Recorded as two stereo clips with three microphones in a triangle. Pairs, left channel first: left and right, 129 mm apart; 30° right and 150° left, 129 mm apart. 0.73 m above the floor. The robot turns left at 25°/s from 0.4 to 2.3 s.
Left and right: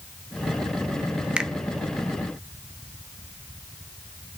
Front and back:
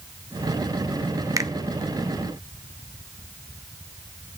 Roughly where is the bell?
I don't hear a bell.